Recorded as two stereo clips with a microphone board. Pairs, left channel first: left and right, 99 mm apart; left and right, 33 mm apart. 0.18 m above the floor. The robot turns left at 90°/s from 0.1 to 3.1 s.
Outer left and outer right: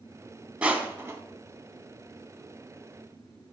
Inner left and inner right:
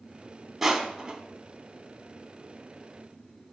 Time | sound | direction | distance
0.6 | crushing | 10° right (ahead or behind) | 0.7 m